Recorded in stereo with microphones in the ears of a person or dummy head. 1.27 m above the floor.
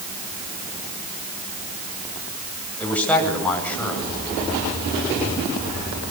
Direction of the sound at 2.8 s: 10° left (ahead or behind).